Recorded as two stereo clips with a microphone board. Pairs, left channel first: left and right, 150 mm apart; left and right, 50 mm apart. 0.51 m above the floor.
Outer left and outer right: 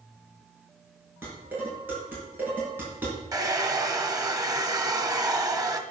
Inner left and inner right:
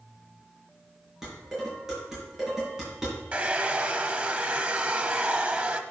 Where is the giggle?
I don't hear a giggle.